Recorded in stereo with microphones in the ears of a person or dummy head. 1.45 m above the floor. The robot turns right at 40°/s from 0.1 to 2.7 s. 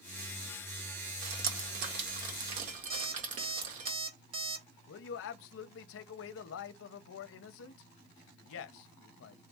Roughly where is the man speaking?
Left.